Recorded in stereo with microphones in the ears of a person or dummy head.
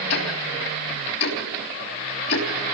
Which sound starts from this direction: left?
Ticking, at 0.1 s.